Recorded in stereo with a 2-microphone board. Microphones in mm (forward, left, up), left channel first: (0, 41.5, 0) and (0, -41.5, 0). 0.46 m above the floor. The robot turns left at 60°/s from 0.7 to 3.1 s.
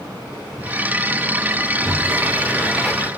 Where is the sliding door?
110° right, 0.9 m; by 3.1 s 165° left, 0.9 m.